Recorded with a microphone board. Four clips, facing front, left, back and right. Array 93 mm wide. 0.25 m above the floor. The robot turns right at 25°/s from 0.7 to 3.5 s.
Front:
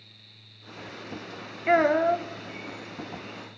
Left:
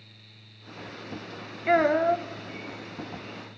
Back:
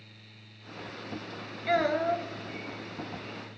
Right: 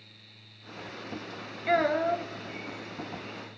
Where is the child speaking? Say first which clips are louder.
Left 4 dB, front 5 dB; 30° left, 0.5 m; by 2.3 s 45° left, 0.5 m.